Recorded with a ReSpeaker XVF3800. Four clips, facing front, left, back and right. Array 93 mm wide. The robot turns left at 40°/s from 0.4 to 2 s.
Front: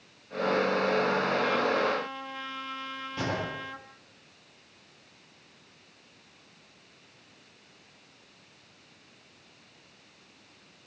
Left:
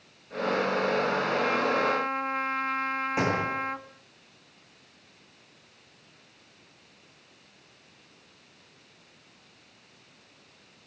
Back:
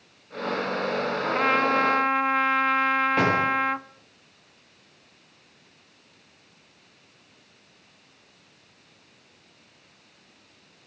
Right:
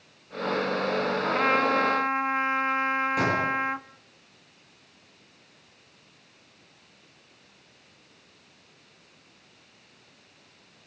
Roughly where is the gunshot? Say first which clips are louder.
Right 2 dB, back 11 dB; behind left.